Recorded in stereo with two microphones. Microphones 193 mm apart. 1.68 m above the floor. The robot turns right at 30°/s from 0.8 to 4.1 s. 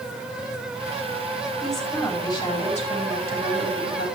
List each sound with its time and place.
1.6 s a woman speaking: 5° right, 5.5 m; by 4.1 s 70° left, 5.5 m